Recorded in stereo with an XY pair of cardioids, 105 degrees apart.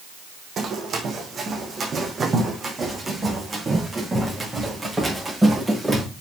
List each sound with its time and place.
0.6 s running footsteps: 55° right, 4 m; by 6.0 s 15° right, 8 m